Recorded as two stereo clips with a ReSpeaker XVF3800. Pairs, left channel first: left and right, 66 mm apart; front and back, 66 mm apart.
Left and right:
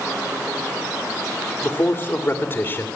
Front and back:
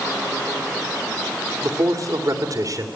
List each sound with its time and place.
1.6 s a man speaking: 150° left, 3 m